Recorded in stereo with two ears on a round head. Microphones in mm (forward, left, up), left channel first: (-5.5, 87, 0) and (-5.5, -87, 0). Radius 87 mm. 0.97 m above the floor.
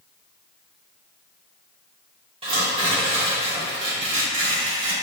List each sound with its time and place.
2.4 s tearing paper: 30° right (ahead or behind), 1.5 m